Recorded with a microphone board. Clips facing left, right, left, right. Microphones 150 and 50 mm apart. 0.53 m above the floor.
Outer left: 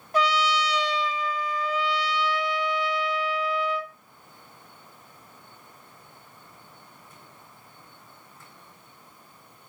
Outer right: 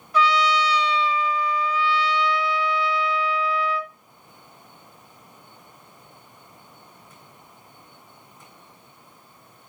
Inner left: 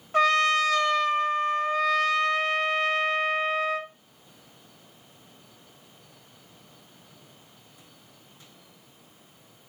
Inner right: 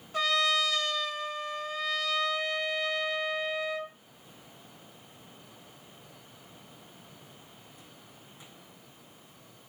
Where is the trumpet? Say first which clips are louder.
Outer right 3 dB, inner left 6 dB; 45° left (ahead or behind), 0.7 m.